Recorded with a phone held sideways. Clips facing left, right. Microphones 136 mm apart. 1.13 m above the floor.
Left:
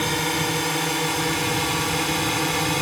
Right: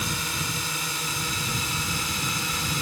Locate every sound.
0.0 s a drone: 80° left; by 2.8 s 75° left (ahead or behind)